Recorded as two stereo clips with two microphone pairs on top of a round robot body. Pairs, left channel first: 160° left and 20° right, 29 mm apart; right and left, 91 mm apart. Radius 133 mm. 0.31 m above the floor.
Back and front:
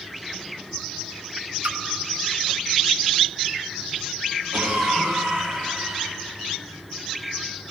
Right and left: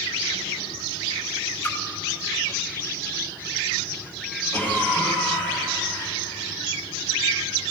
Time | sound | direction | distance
1.6 | a splash | 15° right | 0.7 m
4.5 | a cough | 15° right | 4 m